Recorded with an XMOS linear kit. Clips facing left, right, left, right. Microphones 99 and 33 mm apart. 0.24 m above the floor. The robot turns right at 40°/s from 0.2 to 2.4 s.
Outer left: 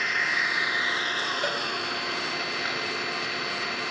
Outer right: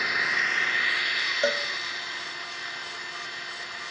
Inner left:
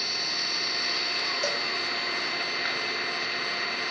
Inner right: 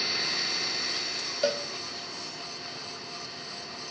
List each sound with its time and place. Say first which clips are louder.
0.0 s an engine running: even, even; 5° right, 1.3 m; by 3.9 s 85° left, 1.3 m
1.4 s a cowbell: outer right 7 dB, inner right 1 dB; 25° right (ahead or behind), 0.8 m